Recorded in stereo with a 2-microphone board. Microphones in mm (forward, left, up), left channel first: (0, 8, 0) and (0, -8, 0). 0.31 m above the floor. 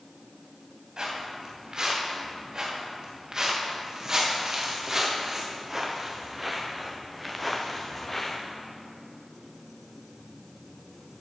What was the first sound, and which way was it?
Footsteps, 50° right (ahead or behind).